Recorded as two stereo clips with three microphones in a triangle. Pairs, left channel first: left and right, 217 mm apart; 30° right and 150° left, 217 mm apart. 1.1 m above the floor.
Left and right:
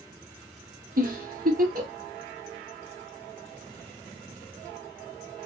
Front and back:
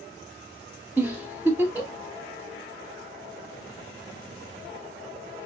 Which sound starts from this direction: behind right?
A giggle, at 1.0 s.